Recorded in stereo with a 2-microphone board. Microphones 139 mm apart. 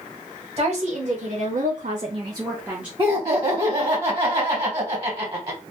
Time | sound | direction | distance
0.6 | a woman speaking | 45° right (ahead or behind) | 1.2 m
3.0 | laughter | 35° right (ahead or behind) | 1.1 m